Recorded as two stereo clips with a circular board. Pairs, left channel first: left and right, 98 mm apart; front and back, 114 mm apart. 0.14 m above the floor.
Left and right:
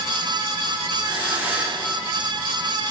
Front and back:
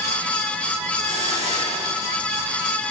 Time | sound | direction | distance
1.0 | a hiss | 160° right | 7 m